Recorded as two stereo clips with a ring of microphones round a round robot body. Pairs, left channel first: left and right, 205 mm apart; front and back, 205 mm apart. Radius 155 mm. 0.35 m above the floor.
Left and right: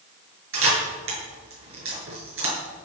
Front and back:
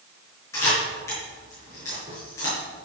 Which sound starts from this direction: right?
A camera shutter, at 0.5 s.